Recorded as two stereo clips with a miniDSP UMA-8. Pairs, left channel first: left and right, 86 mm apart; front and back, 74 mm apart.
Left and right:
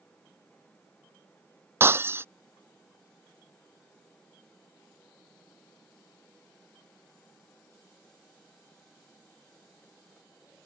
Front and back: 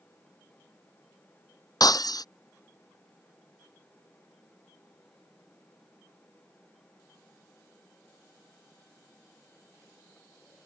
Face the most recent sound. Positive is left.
turn(degrees=-30)